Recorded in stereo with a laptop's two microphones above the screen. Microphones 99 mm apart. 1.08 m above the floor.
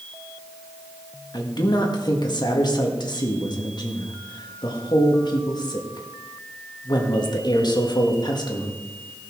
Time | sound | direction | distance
1.3 | a man speaking | 45° left (ahead or behind) | 1.7 m